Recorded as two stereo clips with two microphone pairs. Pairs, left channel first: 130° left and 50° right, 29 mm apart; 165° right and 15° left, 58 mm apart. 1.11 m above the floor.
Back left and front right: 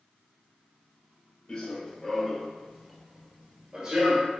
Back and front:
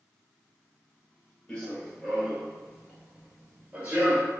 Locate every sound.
1.5 s running footsteps: 130° left, 1.2 m; by 4.3 s 30° right, 1.4 m